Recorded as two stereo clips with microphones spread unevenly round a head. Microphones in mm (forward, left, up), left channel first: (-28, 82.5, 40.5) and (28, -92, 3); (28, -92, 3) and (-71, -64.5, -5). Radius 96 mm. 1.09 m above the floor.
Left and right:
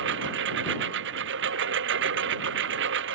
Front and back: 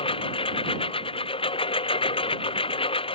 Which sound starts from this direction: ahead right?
A lawn mower, at 0.0 s.